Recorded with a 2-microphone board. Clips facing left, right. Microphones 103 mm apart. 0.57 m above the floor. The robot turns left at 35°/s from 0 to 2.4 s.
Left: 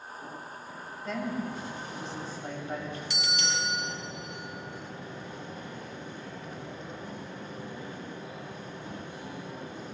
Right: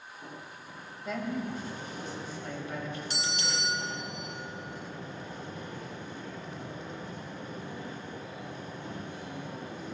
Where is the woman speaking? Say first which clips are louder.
Left 1 dB; 175° right, 3 m; by 3.0 s 140° left, 3 m.